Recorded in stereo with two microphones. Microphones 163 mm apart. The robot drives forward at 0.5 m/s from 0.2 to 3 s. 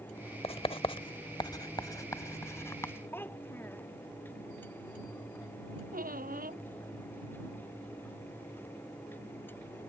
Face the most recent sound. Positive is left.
turn(degrees=-60)  # may be behind; listen again after turning